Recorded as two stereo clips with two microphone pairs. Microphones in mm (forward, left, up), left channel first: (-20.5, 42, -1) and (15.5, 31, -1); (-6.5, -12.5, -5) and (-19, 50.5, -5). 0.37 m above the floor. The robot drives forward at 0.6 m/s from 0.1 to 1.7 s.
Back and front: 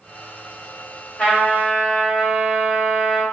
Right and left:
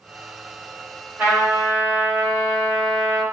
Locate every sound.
1.2 s a trumpet: 155° left, 2.0 m; by 3.2 s 160° left, 2 m